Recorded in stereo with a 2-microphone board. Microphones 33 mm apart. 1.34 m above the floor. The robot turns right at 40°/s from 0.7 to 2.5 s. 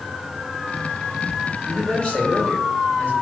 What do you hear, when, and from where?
1.7 s a man speaking: 5° left, 3.5 m; by 3.1 s 40° left, 3.5 m